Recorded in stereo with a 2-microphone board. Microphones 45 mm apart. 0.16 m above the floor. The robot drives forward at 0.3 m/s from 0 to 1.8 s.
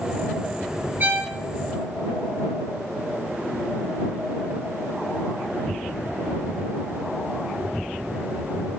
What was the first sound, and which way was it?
A violin, 45° right (ahead or behind).